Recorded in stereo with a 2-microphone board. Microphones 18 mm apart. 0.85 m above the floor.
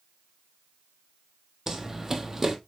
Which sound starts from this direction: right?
Running footsteps, at 1.7 s.